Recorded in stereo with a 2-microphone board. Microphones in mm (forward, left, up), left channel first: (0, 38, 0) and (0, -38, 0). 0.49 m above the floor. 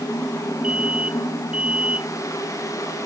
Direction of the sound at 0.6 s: 15° right (ahead or behind).